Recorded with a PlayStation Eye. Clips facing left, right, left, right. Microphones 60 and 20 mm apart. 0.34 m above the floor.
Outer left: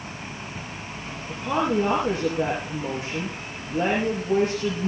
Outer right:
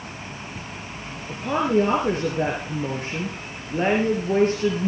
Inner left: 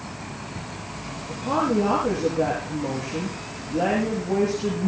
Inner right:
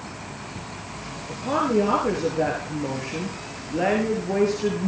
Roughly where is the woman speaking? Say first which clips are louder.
Outer right 2 dB, even; right.